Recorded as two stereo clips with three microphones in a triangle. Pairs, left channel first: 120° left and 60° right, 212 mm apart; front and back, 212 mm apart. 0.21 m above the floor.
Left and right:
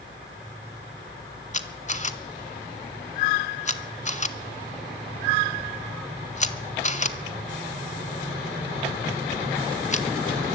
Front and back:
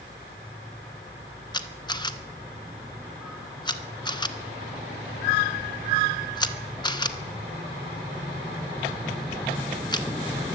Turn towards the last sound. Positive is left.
turn(degrees=65)